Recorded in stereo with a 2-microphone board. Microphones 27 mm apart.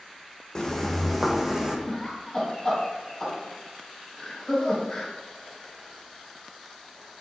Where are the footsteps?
25° left (ahead or behind), 0.7 m; by 1.8 s 25° right (ahead or behind), 0.8 m.